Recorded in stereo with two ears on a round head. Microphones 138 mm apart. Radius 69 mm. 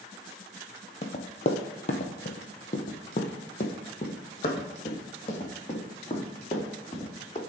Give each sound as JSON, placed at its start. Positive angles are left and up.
{"t": 1.0, "sound": "running footsteps", "side_deg": 45, "distance_m": 1.3}